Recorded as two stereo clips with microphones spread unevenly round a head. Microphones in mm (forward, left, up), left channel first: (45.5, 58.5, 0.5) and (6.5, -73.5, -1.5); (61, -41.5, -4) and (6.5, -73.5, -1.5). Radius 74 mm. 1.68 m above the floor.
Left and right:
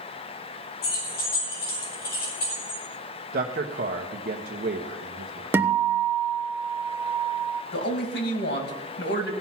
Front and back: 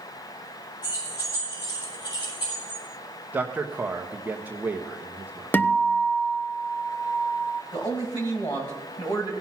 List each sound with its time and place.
0.8 s keys jangling: 70° left, 6.5 m; by 2.8 s 50° left, 7 m
3.3 s a man speaking: 85° right, 1.0 m
5.5 s a guitar: 30° right, 0.8 m
7.7 s a man speaking: 90° left, 2 m